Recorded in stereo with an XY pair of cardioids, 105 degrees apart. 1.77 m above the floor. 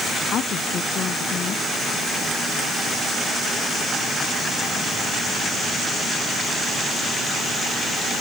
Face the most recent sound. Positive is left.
turn(degrees=60)